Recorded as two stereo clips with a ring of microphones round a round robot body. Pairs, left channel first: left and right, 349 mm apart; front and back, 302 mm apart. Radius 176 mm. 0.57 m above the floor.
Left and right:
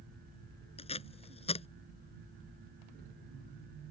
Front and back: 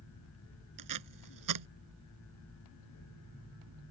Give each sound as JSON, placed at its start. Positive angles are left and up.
{"t": 0.8, "sound": "tape being pulled", "azimuth_deg": 165}